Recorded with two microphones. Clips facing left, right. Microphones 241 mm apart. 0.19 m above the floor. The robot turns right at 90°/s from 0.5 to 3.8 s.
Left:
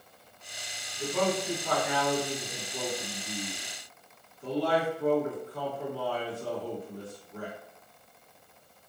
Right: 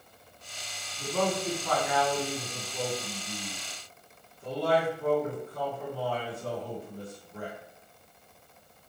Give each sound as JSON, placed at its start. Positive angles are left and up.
{"t": 1.0, "sound": "a man speaking", "azimuth_deg": 80, "distance_m": 1.9}